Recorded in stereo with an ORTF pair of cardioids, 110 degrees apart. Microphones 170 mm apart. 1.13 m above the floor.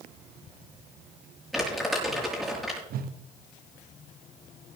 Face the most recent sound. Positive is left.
turn(degrees=-60)